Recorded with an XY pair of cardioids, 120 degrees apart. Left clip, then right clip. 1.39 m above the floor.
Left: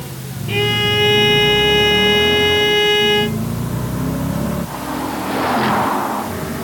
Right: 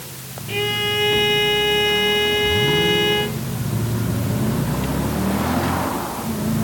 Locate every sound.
0.5 s a violin: 30° left